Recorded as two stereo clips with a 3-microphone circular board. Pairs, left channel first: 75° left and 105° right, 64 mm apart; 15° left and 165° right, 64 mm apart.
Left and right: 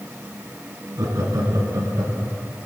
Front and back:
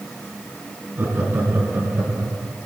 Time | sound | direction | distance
1.0 | laughter | 115° right | 2.5 m